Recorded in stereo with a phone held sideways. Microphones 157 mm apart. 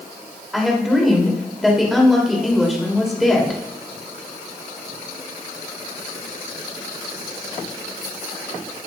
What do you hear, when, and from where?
0.5 s a woman speaking: centre (ahead or behind), 3 m